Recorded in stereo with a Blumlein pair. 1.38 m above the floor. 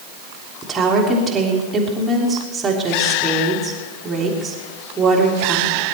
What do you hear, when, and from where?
0.6 s a woman speaking: 15° right, 3.5 m